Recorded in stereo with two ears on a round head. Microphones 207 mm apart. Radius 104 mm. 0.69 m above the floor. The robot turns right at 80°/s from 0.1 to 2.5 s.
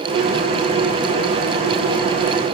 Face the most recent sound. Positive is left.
No sound to turn to.